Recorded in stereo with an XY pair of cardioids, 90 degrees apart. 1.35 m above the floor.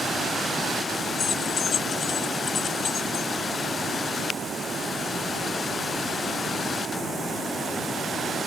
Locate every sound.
1.2 s keys jangling: 60° left